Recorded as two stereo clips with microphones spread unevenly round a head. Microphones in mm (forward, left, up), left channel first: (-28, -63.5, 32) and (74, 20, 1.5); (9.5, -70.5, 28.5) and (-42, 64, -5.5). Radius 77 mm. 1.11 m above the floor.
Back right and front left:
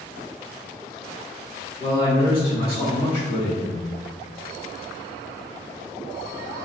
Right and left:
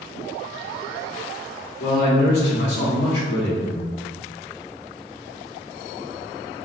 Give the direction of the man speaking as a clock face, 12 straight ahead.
3 o'clock.